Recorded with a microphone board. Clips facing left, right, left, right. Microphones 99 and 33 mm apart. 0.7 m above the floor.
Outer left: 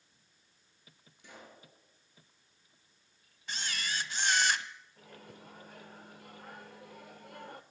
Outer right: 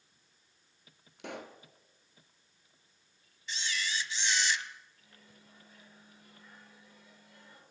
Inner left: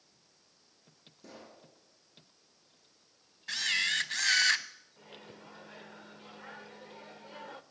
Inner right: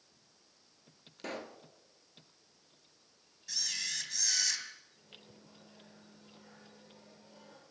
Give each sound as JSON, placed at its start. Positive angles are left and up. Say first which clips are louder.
{"t": 1.2, "sound": "a pop", "louder": "outer right 10 dB, inner right 9 dB", "side_deg": -65, "distance_m": 2.0}
{"t": 3.5, "sound": "a camera shutter", "louder": "outer right 1 dB, inner left 9 dB", "side_deg": 50, "distance_m": 1.1}
{"t": 5.0, "sound": "a microwave", "louder": "outer left 9 dB, inner left 6 dB", "side_deg": 65, "distance_m": 1.5}